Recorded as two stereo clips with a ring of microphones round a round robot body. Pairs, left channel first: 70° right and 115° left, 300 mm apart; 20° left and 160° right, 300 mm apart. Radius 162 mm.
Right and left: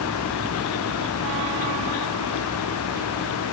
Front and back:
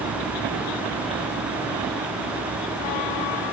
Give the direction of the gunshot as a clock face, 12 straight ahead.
I don't hear a gunshot.